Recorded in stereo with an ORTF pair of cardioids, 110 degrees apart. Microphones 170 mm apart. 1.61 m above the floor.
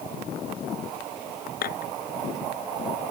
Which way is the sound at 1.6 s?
60° left.